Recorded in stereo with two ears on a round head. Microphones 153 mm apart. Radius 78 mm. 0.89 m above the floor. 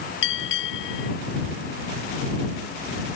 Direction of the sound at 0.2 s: 80° left.